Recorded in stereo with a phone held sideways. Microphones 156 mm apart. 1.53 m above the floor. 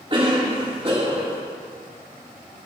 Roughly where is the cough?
Right.